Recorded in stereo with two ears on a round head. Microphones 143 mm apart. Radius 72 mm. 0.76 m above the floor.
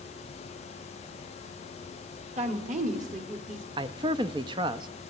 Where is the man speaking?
30° right (ahead or behind), 0.7 m.